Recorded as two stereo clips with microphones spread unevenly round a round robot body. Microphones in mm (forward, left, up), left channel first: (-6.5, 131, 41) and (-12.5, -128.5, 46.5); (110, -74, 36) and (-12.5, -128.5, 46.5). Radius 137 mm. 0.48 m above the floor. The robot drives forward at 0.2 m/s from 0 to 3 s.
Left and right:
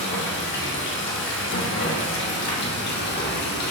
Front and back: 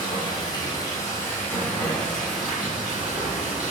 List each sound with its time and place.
0.0 s running water: 60° left, 0.7 m; by 3.7 s 120° left, 0.7 m